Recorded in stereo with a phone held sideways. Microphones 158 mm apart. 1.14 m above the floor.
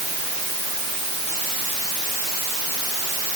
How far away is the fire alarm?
I don't hear a fire alarm.